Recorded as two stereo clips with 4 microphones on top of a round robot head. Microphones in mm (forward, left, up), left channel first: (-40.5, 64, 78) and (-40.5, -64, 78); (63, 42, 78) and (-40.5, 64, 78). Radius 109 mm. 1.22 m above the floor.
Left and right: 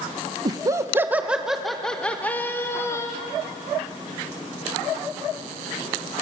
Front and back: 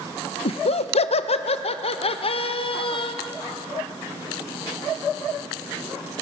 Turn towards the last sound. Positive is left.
turn(degrees=20)